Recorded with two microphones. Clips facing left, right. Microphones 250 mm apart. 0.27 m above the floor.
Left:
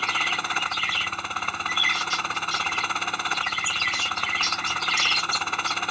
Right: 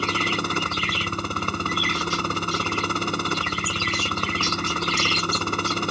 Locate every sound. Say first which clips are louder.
0.0 s a helicopter: right 10 dB; 45° right (ahead or behind)